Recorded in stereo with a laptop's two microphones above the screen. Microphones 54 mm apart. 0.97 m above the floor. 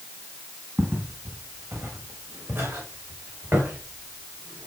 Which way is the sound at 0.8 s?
35° right (ahead or behind).